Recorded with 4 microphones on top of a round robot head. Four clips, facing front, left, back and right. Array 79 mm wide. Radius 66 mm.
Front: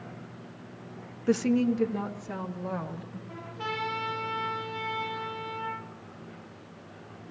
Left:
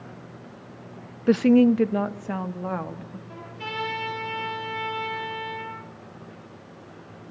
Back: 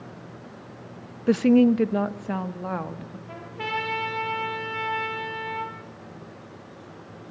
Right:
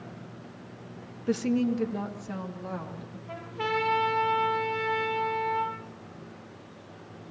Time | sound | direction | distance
1.3 | a woman speaking | 120° left | 0.6 m
3.3 | a trumpet | 135° right | 7.5 m